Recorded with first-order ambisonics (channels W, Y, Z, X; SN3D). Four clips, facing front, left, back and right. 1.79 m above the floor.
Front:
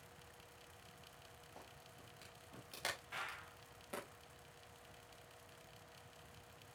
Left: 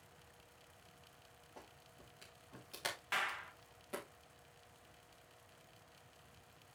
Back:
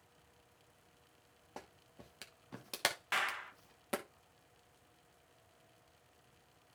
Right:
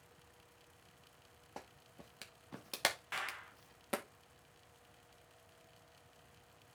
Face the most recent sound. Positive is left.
turn(degrees=165)